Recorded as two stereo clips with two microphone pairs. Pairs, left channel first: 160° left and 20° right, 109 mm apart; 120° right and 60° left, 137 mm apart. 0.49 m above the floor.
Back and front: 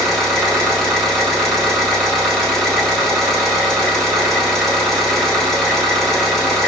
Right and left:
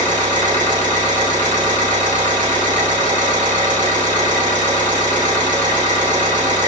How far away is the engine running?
About 2 m.